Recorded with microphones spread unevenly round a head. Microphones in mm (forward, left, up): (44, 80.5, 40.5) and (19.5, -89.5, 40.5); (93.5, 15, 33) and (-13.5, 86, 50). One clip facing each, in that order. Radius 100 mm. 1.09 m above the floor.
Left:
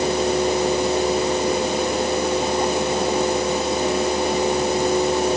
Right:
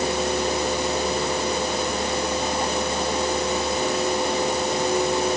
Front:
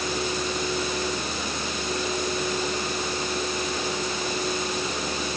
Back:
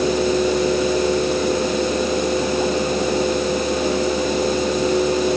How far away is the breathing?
No breathing in this recording.